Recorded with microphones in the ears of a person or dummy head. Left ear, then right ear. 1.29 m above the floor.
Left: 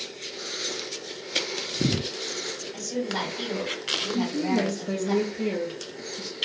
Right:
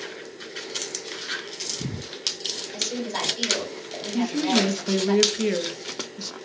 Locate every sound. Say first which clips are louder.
2.7 s a woman speaking: left 1 dB; 75° right (ahead or behind), 1.9 m
4.1 s a woman speaking: right 3 dB; 35° right (ahead or behind), 0.5 m